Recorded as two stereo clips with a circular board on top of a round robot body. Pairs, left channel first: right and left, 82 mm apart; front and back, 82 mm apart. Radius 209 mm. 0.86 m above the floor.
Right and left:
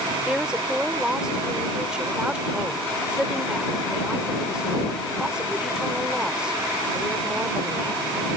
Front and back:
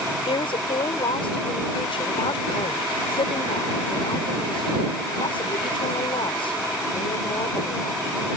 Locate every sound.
0.3 s a woman speaking: 10° left